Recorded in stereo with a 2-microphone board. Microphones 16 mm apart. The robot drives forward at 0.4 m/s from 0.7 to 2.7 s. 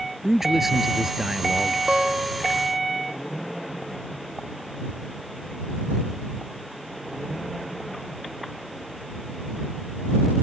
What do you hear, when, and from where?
0.2 s a man speaking: 20° right (ahead or behind)
1.9 s a guitar: 65° right (ahead or behind); by 2.5 s 60° right (ahead or behind)